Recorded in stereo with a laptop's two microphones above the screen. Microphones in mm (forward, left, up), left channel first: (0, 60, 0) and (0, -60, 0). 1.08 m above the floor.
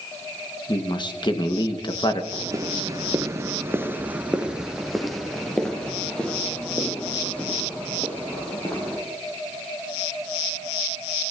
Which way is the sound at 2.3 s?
25° right (ahead or behind).